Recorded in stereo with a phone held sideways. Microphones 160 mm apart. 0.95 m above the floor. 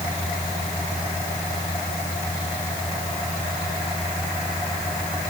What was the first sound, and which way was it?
Only background noise.